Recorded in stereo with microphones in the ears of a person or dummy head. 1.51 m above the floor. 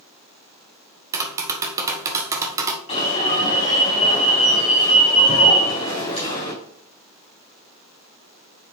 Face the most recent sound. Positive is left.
turn(degrees=30)  # may be behind; listen again after turning